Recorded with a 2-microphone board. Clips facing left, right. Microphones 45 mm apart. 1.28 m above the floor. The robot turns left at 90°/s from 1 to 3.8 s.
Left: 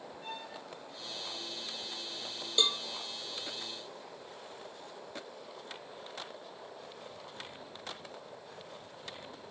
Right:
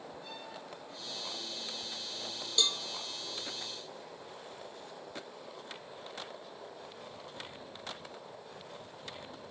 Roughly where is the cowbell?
Left.